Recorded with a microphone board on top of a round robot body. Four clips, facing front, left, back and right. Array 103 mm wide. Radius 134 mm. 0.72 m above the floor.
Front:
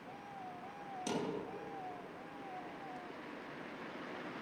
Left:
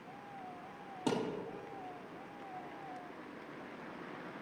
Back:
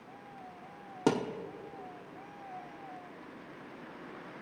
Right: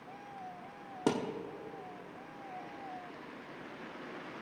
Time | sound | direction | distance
1.1 | a thud | 155° right | 0.9 m